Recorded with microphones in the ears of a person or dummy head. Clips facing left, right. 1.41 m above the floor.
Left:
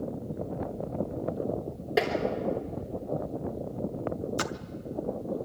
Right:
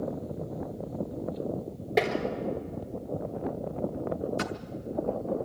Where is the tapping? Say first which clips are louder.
Right 1 dB; 10° left (ahead or behind), 3.5 m.